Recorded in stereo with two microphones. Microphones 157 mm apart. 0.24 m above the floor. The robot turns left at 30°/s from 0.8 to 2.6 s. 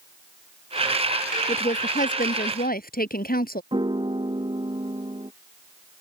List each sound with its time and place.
1.5 s a woman speaking: 135° left; by 3.6 s 100° left
3.7 s a piano: 30° right (ahead or behind)